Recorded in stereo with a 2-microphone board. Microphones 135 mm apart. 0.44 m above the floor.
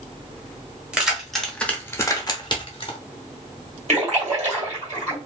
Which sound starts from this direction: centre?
Keys jangling, at 0.9 s.